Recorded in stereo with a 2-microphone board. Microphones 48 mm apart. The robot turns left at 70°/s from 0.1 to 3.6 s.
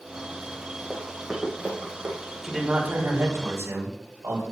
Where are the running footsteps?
15° left (ahead or behind), 3 m; by 2.1 s 55° right (ahead or behind), 3.5 m.